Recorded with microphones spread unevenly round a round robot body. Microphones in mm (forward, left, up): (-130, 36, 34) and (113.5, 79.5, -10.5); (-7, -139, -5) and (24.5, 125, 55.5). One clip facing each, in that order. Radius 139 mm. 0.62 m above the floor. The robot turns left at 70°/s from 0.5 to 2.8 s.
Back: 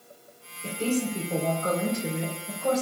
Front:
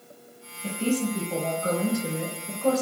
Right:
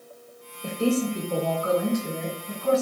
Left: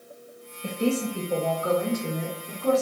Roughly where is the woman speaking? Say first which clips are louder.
Front 1 dB, right 2 dB; behind right.